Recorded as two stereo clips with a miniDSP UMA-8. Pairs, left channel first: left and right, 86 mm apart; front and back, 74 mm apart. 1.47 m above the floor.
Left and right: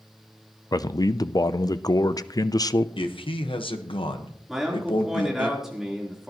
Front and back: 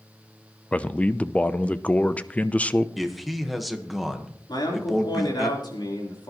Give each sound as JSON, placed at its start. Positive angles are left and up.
{"t": 0.7, "sound": "a man speaking", "azimuth_deg": 65, "distance_m": 0.5}
{"t": 3.0, "sound": "a man speaking", "azimuth_deg": 90, "distance_m": 1.3}
{"t": 4.5, "sound": "a man speaking", "azimuth_deg": -5, "distance_m": 3.5}